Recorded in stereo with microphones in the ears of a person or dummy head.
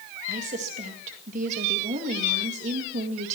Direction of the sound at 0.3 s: 40° right (ahead or behind).